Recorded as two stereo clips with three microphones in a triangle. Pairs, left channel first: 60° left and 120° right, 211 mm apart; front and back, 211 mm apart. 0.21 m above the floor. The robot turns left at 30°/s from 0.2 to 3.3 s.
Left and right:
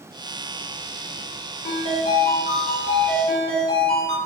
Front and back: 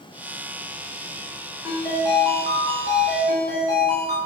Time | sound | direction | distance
1.6 | a ringtone | 85° left | 1.5 m